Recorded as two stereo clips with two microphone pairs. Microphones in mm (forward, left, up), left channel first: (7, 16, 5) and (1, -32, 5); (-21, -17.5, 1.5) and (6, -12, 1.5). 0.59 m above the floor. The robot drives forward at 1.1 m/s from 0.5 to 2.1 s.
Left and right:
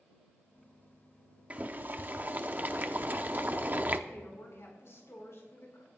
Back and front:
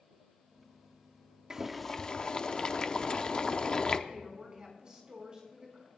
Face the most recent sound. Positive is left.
turn(degrees=65)